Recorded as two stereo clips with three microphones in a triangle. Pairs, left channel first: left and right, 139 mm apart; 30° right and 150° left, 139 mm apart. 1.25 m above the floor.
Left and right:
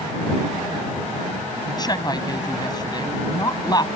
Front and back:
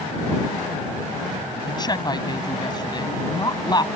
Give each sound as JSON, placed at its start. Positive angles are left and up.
{"t": 1.7, "sound": "a woman speaking", "azimuth_deg": 30}